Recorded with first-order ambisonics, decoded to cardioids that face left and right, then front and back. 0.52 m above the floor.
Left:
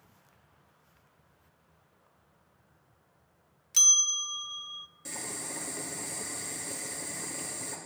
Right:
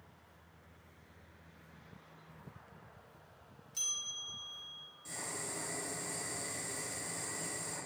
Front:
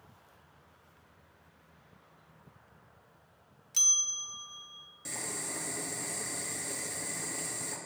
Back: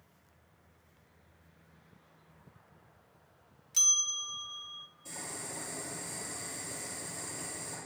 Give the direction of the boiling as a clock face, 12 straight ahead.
11 o'clock.